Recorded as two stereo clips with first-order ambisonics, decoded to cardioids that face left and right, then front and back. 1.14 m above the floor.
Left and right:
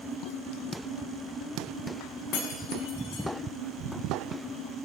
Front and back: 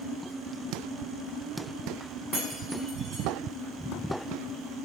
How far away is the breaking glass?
About 5.5 m.